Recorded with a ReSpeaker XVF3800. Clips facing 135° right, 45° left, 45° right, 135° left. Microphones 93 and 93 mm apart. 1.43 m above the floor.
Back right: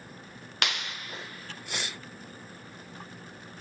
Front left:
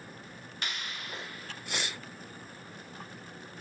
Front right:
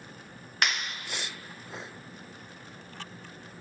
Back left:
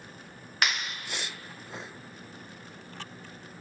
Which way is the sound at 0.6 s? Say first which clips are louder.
Back right 6 dB, even; 135° right.